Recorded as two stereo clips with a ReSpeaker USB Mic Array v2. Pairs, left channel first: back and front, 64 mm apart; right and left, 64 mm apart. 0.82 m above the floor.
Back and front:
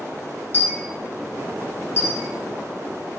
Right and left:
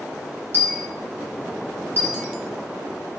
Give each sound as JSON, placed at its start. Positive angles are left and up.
{"t": 0.5, "sound": "a dropped coin", "azimuth_deg": 130, "distance_m": 1.2}